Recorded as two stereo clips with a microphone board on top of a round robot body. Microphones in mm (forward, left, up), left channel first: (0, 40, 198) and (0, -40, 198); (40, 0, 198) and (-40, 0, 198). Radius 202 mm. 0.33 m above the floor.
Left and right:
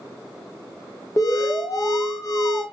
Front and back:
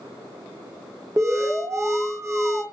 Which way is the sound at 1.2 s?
130° left.